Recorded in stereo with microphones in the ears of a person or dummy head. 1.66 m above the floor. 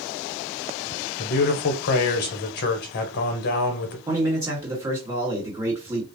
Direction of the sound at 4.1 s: 15° right (ahead or behind).